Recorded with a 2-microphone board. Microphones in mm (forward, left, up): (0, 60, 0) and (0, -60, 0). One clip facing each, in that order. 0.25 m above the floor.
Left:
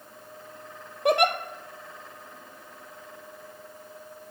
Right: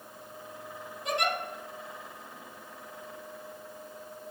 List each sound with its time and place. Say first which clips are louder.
1.1 s a giggle: left 9 dB; 65° left (ahead or behind), 1.2 m